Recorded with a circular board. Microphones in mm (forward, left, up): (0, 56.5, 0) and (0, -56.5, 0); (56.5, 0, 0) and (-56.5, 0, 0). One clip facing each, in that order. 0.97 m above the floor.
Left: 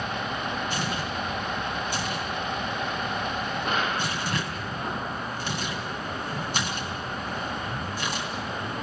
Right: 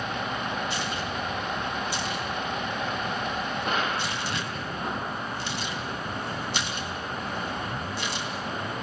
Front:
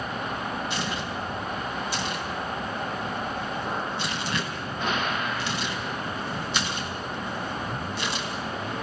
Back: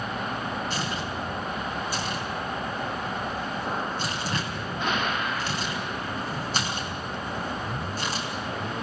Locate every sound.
0.7 s tearing paper: 135° left, 3.5 m